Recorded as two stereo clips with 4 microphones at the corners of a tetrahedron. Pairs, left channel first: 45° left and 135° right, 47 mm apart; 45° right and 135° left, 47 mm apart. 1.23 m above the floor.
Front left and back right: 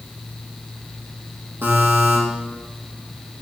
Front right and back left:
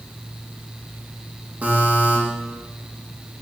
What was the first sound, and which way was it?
A buzzer, 170° right.